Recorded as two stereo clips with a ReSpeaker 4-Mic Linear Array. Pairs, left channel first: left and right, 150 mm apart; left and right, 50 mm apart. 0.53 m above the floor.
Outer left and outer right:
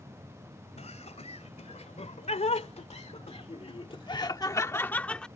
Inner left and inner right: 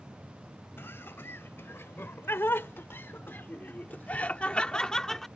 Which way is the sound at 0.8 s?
50° left (ahead or behind).